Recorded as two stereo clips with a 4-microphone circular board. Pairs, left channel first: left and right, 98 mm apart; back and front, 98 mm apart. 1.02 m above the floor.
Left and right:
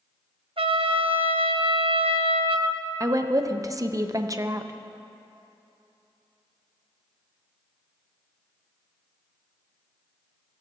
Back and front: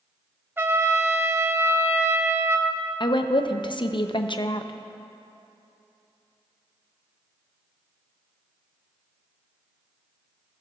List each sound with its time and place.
0.6 s a trumpet: 70° right, 0.6 m
3.0 s a woman speaking: 145° right, 0.5 m